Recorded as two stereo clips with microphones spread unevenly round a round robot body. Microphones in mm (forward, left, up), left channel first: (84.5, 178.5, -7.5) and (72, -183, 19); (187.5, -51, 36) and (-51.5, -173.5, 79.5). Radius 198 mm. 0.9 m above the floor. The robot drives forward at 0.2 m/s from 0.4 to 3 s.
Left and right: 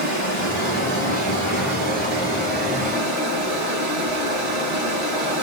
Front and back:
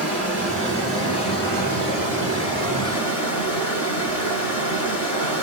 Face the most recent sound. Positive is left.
turn(degrees=160)